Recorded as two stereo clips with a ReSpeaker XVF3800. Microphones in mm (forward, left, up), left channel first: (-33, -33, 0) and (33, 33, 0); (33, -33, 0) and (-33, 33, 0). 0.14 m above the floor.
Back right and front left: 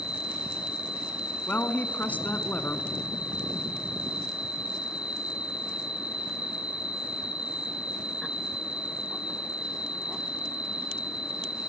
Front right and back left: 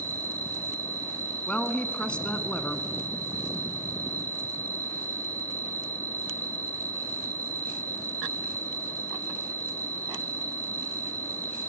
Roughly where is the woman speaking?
Right.